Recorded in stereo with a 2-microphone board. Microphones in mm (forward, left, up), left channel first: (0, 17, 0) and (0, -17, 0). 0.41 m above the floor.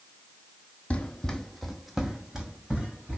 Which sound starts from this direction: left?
Running footsteps, at 0.9 s.